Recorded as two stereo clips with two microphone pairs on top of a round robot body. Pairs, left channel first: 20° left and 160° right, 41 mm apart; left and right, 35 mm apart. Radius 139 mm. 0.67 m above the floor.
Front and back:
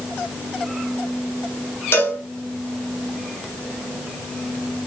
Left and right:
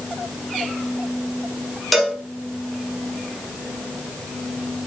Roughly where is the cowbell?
Ahead.